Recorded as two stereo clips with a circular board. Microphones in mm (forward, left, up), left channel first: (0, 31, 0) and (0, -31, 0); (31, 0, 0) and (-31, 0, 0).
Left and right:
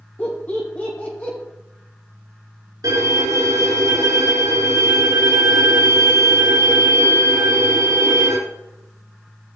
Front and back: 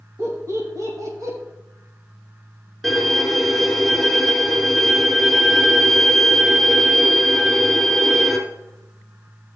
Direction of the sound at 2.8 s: 100° right.